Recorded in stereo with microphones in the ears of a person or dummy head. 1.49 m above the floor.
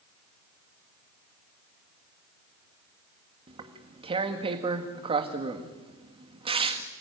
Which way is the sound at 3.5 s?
30° right (ahead or behind).